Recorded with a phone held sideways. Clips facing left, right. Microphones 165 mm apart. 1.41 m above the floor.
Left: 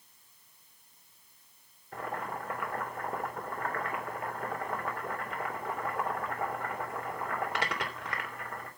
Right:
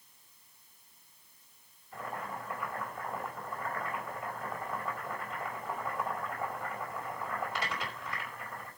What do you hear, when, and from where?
1.9 s boiling: 75° left (ahead or behind), 3.5 m